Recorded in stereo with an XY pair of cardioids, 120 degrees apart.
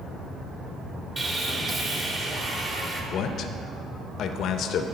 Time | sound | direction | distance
1.2 | sawing | 25° right | 1.5 m
3.1 | a man speaking | 65° left | 0.7 m